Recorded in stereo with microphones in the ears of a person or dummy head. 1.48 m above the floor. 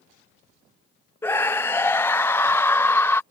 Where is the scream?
10° left (ahead or behind).